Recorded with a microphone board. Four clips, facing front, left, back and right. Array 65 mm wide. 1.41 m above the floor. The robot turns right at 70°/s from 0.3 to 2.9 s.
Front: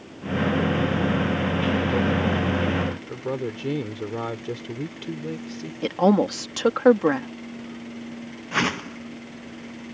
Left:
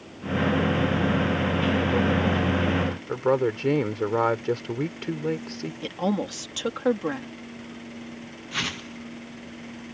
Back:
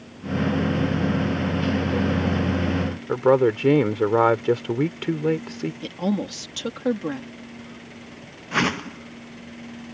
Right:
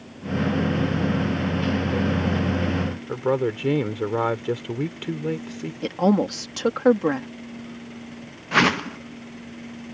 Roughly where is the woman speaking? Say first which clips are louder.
Right 7 dB, front 9 dB; ahead right.